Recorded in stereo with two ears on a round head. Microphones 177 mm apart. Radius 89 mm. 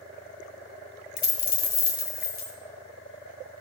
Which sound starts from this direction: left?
A dropped coin, at 1.2 s.